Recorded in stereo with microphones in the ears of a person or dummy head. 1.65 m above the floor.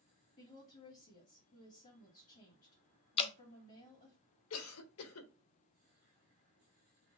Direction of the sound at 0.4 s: 40° left (ahead or behind).